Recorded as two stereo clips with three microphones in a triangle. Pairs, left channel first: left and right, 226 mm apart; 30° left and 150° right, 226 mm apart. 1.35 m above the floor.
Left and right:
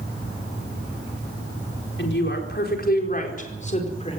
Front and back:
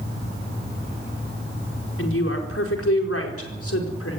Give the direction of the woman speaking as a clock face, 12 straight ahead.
10 o'clock.